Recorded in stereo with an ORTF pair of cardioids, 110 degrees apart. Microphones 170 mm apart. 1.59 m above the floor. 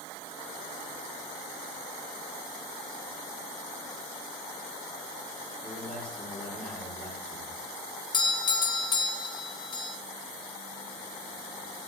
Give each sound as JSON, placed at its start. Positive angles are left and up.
{"t": 5.6, "sound": "a man speaking", "azimuth_deg": 5, "distance_m": 5.0}
{"t": 8.1, "sound": "a doorbell", "azimuth_deg": 25, "distance_m": 1.5}